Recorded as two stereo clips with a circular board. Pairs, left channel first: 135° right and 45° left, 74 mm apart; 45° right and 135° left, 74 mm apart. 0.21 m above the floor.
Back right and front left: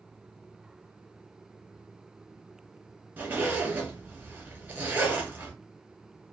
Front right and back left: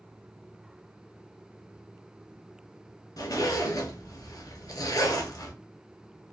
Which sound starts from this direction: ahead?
A zipper, at 3.2 s.